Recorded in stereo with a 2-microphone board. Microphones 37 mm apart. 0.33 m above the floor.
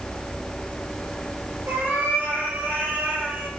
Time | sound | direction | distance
1.7 | a cat meowing | 80° right | 4.5 m